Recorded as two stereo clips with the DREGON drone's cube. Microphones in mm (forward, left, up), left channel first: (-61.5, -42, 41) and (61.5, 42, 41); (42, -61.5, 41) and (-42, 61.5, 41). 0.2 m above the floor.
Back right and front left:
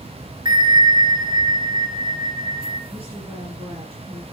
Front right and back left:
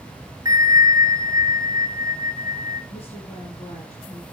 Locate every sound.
0.5 s a bell: 75° left, 1.2 m
2.9 s a woman speaking: 10° right, 4.5 m